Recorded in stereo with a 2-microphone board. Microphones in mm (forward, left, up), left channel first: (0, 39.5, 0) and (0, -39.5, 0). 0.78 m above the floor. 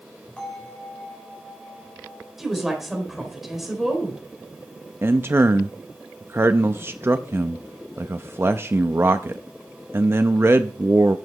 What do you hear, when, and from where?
0.4 s a bell: 15° left (ahead or behind), 4 m
2.4 s a woman speaking: centre (ahead or behind), 4 m
5.0 s a man speaking: 30° right (ahead or behind), 0.5 m